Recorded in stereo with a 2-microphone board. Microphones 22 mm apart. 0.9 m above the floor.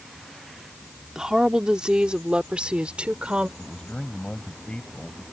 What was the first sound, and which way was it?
A woman speaking, 30° right (ahead or behind).